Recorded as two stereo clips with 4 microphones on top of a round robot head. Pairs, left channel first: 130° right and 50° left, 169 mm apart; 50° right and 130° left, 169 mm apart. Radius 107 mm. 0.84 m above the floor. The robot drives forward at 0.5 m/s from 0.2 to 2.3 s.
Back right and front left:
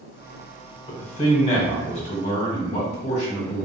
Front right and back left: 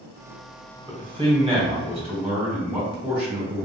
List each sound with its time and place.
0.9 s a man speaking: 175° right, 1.3 m